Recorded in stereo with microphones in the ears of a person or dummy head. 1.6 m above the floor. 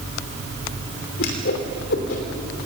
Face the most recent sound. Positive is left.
turn(degrees=75)  # may be behind; listen again after turning